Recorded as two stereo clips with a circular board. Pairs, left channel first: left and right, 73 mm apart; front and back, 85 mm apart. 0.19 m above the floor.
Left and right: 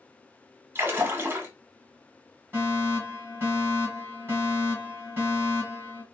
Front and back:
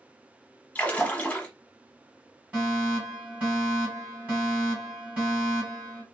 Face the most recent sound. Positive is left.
turn(degrees=-125)